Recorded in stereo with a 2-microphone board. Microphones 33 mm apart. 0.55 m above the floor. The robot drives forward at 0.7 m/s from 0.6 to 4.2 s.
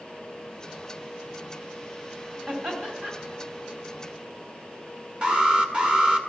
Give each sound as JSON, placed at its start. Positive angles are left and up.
{"t": 2.5, "sound": "laughter", "side_deg": -40, "distance_m": 3.5}
{"t": 5.2, "sound": "an alarm", "side_deg": -30, "distance_m": 1.3}